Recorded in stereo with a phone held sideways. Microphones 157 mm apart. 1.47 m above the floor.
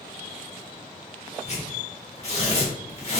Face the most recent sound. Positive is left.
turn(degrees=45)  # may be behind; listen again after turning